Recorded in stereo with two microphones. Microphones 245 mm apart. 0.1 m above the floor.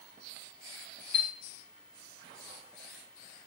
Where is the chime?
45° left (ahead or behind), 0.8 m.